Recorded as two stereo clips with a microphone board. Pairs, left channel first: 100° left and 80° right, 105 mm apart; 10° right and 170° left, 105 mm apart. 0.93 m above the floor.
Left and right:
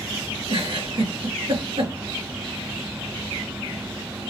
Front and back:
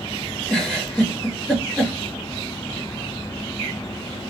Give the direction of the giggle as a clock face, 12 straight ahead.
3 o'clock.